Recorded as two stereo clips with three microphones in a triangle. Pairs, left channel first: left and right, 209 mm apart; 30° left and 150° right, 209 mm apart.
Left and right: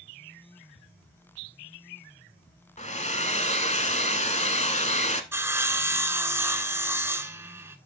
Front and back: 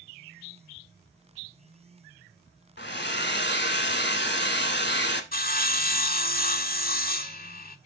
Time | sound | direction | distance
2.8 | a hair dryer | 40° left | 0.9 m
5.3 | sawing | 15° right | 0.6 m